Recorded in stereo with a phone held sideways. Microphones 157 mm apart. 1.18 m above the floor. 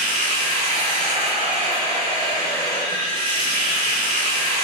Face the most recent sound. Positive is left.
turn(degrees=-35)  # may be behind; listen again after turning